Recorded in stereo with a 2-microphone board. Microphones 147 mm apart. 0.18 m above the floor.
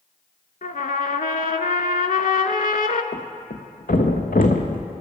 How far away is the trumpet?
About 0.5 m.